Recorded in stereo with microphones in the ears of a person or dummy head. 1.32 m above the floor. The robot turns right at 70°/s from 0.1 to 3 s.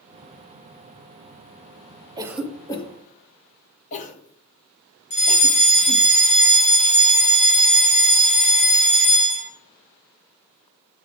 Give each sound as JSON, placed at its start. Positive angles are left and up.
{"t": 2.2, "sound": "a cough", "side_deg": -20, "distance_m": 1.1}
{"t": 5.1, "sound": "a fire alarm", "side_deg": 35, "distance_m": 1.6}